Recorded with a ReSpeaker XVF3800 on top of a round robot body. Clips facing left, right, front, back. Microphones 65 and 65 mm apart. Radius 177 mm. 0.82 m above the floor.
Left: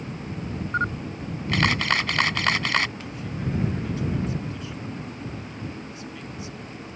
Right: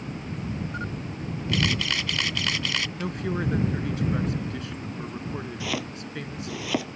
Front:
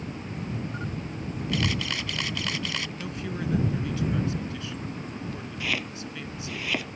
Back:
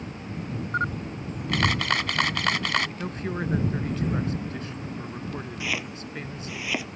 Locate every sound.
0.7 s a camera shutter: 140° left
3.0 s a woman speaking: 130° right
5.6 s chopping: 95° right